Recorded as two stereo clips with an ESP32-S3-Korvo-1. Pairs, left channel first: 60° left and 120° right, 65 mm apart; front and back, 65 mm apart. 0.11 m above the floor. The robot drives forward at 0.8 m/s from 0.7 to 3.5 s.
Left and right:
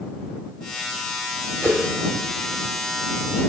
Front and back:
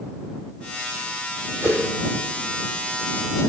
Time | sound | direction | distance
1.6 | a whoosh | 165° right | 3.5 m